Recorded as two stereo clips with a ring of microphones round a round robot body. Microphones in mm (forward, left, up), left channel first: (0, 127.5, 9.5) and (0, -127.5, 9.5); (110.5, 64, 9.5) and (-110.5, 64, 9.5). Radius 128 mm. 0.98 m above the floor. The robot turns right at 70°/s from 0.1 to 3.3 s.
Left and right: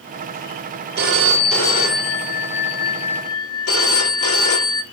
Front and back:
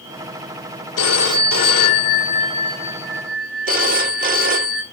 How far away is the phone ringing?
About 1.1 m.